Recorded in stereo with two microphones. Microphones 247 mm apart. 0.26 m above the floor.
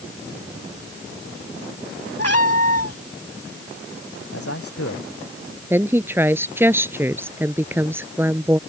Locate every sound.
2.2 s a cat meowing: 80° left
4.3 s a man speaking: 65° left (ahead or behind)
5.7 s a woman speaking: 10° right (ahead or behind)